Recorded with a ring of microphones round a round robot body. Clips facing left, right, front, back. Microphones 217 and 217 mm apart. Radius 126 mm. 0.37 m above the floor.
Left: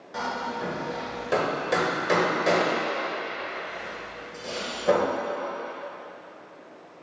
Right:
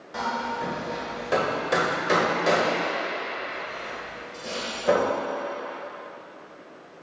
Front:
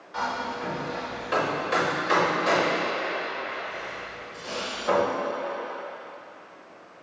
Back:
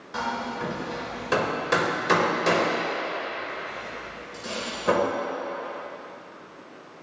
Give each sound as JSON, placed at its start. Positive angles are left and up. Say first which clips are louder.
{"t": 0.1, "sound": "hammering", "louder": "right 1 dB, back 1 dB", "azimuth_deg": 180, "distance_m": 1.4}